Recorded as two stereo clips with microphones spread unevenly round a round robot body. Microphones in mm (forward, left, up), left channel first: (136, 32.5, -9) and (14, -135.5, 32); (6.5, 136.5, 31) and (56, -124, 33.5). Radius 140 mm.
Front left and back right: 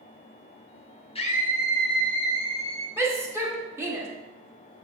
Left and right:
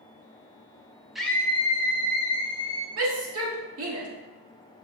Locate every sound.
1.1 s a scream: 10° left, 0.8 m; by 2.9 s 65° left, 1.6 m
3.0 s a shout: 45° right, 2.0 m